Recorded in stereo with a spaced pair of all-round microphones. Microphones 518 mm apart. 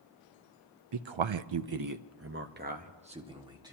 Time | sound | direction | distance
0.9 | a man speaking | 55° right (ahead or behind) | 0.6 m